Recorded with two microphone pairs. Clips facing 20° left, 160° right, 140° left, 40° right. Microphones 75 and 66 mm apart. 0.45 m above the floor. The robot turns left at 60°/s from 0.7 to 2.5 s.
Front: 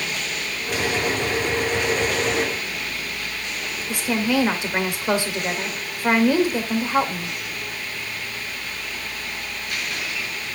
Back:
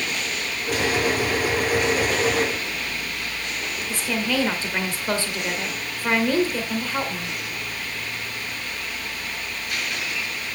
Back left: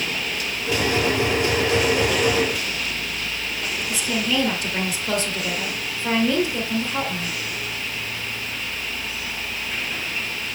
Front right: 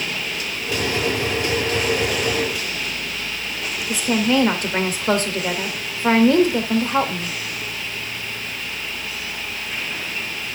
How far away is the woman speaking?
About 1.8 m.